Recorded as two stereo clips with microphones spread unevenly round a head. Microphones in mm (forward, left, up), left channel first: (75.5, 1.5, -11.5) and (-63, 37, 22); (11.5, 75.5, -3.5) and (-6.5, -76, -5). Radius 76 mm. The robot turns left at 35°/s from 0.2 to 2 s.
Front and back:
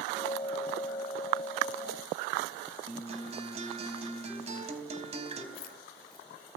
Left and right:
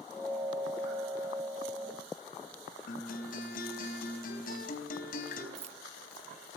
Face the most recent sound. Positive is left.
turn(degrees=-45)